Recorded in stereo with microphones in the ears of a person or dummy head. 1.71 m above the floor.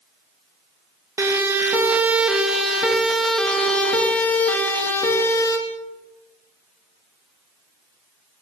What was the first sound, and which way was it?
A siren, 20° right (ahead or behind).